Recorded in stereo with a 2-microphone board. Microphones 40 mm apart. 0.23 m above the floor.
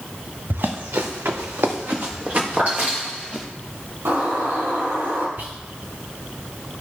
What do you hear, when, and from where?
0.5 s running footsteps: 55° right (ahead or behind), 1.7 m; by 3.5 s 30° right (ahead or behind), 4 m
2.6 s a clap: 50° right (ahead or behind), 3 m
4.0 s a bird: 70° right (ahead or behind), 3.5 m
5.4 s whispering: 60° right (ahead or behind), 2 m